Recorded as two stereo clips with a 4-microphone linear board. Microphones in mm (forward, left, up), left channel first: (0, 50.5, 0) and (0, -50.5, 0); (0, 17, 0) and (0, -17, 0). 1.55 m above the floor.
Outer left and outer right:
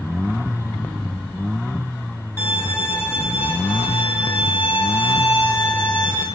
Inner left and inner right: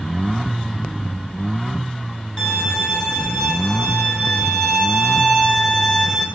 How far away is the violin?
About 3.5 m.